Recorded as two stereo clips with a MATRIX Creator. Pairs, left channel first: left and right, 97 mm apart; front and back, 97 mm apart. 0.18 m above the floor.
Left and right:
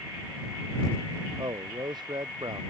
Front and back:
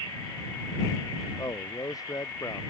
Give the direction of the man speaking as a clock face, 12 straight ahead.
2 o'clock.